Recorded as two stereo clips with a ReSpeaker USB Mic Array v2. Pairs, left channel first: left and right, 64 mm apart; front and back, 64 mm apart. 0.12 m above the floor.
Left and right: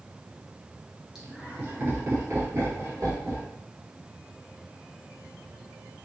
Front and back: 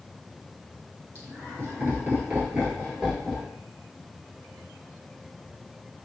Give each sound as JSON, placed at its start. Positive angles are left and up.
{"t": 1.1, "sound": "laughter", "azimuth_deg": -165, "distance_m": 1.5}